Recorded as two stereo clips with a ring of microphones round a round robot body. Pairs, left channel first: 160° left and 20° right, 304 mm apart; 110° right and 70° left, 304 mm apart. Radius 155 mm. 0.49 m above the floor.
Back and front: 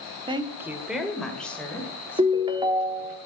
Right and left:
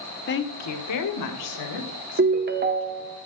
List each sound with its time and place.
0.3 s a woman speaking: 85° right, 0.9 m; by 3.2 s 120° right, 4 m
2.2 s a ringtone: 40° left, 0.9 m